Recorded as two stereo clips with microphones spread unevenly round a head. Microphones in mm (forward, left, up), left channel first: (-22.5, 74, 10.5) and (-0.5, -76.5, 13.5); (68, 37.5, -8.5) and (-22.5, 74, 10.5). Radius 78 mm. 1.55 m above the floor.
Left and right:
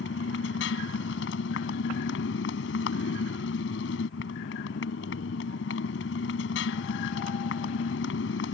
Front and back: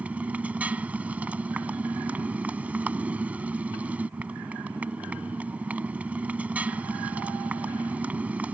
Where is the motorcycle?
85° left.